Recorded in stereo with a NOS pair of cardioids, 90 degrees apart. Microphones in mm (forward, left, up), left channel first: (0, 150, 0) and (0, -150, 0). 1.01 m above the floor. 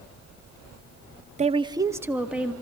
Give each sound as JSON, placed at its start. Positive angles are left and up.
{"t": 1.4, "sound": "a woman speaking", "azimuth_deg": -25, "distance_m": 0.7}